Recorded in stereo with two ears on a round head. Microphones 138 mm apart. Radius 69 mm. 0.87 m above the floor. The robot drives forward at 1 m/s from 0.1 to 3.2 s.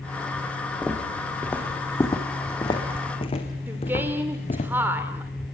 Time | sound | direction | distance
0.8 | footsteps | centre (ahead or behind) | 3.5 m
3.7 | a woman speaking | 15° right (ahead or behind) | 2.5 m